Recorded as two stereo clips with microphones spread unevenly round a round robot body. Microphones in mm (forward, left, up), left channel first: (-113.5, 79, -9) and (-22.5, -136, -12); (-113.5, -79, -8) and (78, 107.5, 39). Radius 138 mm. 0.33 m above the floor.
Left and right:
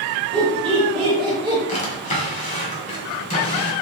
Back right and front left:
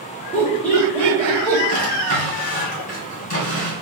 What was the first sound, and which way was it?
Laughter, 85° right.